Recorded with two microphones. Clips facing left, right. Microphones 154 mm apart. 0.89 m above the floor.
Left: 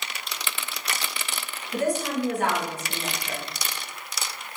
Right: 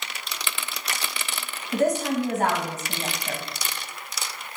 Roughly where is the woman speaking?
Right.